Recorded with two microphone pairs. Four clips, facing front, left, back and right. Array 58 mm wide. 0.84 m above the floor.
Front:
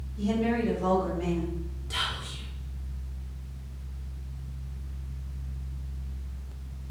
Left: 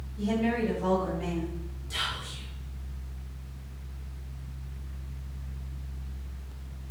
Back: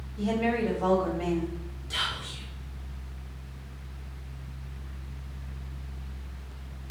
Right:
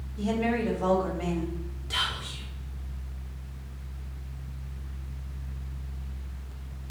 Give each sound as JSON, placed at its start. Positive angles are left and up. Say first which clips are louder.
{"t": 0.2, "sound": "a woman speaking", "louder": "even, even", "azimuth_deg": -135, "distance_m": 3.5}
{"t": 1.9, "sound": "whispering", "louder": "right 3 dB, back 1 dB", "azimuth_deg": -90, "distance_m": 2.5}